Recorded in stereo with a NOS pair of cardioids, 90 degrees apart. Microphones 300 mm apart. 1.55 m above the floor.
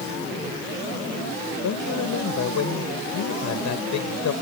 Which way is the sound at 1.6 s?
70° left.